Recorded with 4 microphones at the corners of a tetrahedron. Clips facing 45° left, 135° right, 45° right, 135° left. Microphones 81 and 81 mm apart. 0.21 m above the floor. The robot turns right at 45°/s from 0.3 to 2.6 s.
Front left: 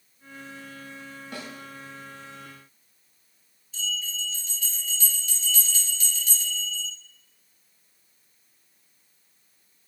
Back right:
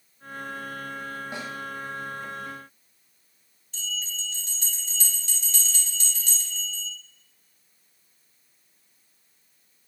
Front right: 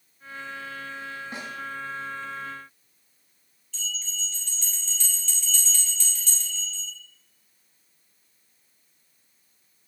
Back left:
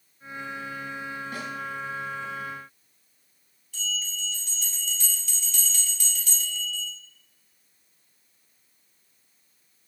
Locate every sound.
1.3 s a snare drum: 85° right, 1.5 m; by 1.5 s 75° right, 1.5 m
3.7 s a bell: 145° right, 3.5 m